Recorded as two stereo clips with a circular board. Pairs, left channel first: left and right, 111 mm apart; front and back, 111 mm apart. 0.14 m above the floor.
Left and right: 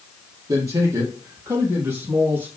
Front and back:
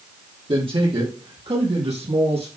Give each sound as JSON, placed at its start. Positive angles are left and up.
{"t": 0.5, "sound": "a man speaking", "azimuth_deg": -145, "distance_m": 4.0}